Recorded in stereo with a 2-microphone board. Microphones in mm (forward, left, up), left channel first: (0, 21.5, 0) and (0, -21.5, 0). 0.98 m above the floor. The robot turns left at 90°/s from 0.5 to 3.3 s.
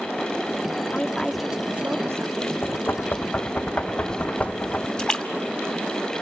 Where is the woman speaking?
35° left, 1.7 m; by 2.5 s 110° right, 1.7 m.